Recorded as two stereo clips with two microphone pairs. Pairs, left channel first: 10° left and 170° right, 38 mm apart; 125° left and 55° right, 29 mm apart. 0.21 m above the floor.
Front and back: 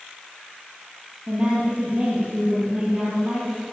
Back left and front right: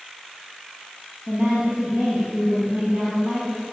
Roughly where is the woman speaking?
Right.